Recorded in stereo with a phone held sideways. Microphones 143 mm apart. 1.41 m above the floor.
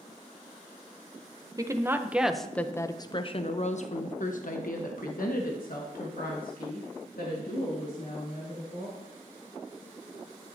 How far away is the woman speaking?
About 0.9 m.